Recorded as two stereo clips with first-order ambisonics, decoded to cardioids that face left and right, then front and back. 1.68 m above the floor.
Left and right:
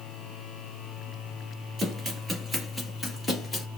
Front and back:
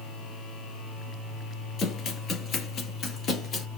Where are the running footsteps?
25° right, 2 m; by 3.7 s 25° left, 1.9 m.